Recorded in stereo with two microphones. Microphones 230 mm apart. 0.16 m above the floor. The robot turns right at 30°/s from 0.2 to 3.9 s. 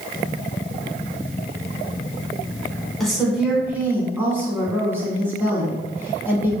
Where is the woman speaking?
Centre (ahead or behind), 1.1 m; by 6.5 s 10° right (ahead or behind), 1.1 m.